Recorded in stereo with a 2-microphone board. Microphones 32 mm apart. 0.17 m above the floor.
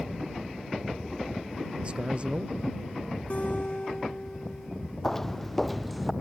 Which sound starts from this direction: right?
A man speaking, at 1.8 s.